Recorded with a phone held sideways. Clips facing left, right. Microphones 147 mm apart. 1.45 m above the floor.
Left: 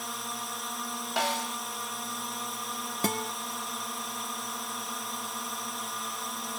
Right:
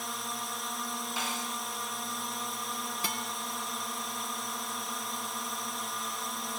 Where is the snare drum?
70° left (ahead or behind).